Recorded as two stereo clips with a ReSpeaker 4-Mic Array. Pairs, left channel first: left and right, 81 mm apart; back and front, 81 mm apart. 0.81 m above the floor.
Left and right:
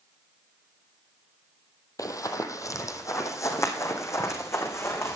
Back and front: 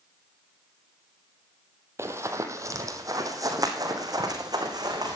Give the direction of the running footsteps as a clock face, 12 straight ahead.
10 o'clock.